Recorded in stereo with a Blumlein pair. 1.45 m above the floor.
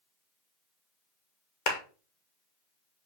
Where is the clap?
50° left, 1.0 m.